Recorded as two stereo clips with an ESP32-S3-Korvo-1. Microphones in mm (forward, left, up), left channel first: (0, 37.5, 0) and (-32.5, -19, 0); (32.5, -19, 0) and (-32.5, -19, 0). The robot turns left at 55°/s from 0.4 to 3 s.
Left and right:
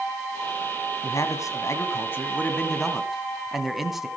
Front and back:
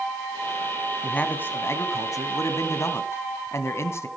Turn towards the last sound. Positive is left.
turn(degrees=-35)